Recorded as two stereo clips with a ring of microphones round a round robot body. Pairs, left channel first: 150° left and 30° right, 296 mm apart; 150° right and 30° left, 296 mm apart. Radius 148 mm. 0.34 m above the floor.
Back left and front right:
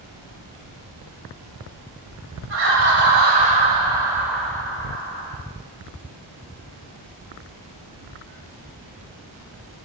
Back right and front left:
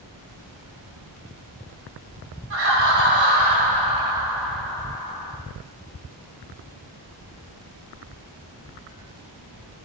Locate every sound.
2.5 s laughter: 5° left, 2 m; by 5.4 s 175° left, 1.6 m